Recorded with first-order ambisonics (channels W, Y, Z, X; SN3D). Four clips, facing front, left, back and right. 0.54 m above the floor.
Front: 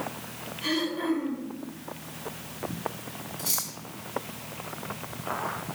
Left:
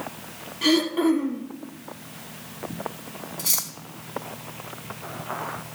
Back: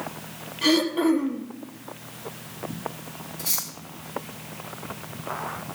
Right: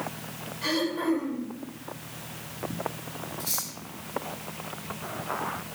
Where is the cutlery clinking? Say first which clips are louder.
Left 6 dB, back 2 dB; 90° left, 2.5 m.